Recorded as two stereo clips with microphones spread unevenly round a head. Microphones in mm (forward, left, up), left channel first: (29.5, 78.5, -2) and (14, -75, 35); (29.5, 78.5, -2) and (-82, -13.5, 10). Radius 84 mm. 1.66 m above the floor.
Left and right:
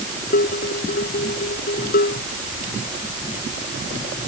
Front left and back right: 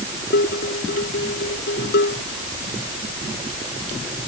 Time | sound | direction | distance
0.3 | dishes clattering | 50° left | ?